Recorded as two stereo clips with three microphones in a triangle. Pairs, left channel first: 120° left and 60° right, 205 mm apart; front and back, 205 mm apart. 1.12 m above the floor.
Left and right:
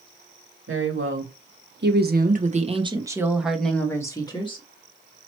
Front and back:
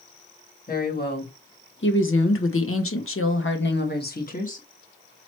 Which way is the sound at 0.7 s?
45° right.